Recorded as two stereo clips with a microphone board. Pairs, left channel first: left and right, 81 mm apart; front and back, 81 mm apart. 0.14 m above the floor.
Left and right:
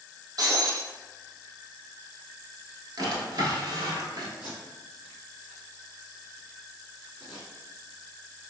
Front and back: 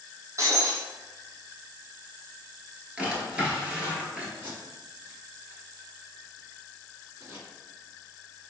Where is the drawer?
105° right, 1.0 m.